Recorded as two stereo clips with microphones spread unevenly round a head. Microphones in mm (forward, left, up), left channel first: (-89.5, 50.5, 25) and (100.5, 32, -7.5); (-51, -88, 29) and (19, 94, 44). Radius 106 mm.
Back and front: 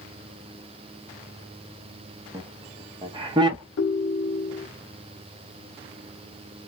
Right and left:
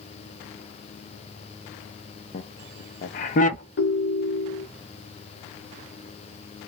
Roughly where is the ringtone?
Behind right.